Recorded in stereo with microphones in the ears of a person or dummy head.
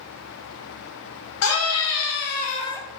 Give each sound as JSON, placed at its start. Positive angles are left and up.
{"t": 1.4, "sound": "a scream", "side_deg": 80, "distance_m": 1.7}